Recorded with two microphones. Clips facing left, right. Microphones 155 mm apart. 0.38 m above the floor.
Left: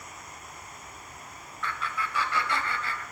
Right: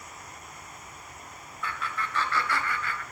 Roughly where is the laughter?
Centre.